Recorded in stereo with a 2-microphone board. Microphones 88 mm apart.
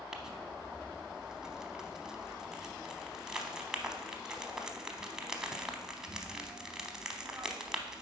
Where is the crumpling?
5° right (ahead or behind), 0.9 m.